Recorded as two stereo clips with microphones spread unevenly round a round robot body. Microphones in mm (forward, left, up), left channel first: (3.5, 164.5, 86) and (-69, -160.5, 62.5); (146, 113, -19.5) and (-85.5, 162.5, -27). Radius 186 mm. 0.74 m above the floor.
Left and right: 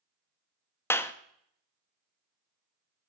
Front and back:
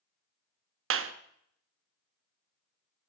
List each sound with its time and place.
0.9 s a clap: 160° left, 0.8 m